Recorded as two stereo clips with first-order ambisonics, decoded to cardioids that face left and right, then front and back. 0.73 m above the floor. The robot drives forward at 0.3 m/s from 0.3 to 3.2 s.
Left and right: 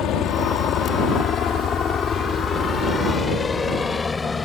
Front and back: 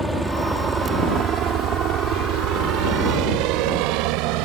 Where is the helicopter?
90° left; by 4.5 s 170° left.